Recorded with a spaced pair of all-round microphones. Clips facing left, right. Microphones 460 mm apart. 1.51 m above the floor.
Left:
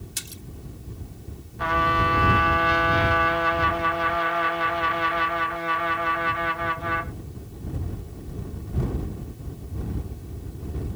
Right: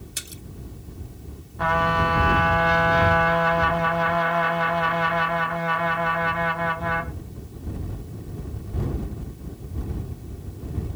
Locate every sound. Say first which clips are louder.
0.2 s a splash: even; 15° left (ahead or behind)
1.6 s a trumpet: right 2 dB; 65° right (ahead or behind)